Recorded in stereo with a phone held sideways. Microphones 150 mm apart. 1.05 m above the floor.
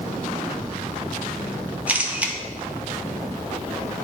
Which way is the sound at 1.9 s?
10° right (ahead or behind).